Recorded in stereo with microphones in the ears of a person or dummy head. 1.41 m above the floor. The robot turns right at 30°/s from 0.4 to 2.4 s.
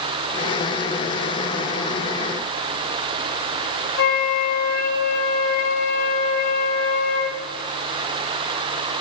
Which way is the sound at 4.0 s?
60° left (ahead or behind).